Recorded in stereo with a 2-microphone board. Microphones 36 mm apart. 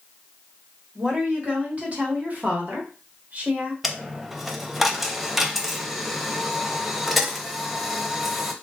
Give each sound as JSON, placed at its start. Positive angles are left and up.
{"t": 0.9, "sound": "a woman speaking", "side_deg": -25, "distance_m": 1.3}
{"t": 3.8, "sound": "a dropped coin", "side_deg": -5, "distance_m": 0.5}